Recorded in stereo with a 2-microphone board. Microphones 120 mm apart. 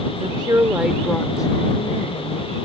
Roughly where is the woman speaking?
Right.